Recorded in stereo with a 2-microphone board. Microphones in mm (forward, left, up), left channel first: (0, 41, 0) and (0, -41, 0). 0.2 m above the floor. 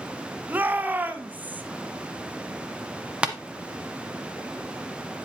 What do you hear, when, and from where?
0.5 s a shout: 20° right (ahead or behind), 1.3 m
3.2 s tapping: 15° right (ahead or behind), 1.1 m